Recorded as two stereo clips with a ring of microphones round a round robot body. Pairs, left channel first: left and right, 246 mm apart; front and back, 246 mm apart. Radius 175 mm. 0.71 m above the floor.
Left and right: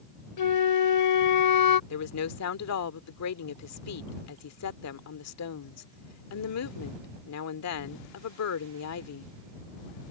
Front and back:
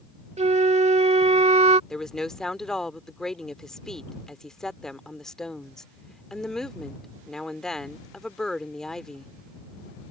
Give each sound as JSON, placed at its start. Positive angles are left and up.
{"t": 0.4, "sound": "a flute", "azimuth_deg": 115}
{"t": 1.9, "sound": "a woman speaking", "azimuth_deg": 90}